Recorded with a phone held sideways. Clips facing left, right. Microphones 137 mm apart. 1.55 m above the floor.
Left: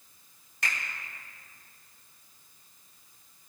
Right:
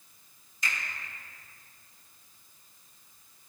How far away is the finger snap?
About 3.5 m.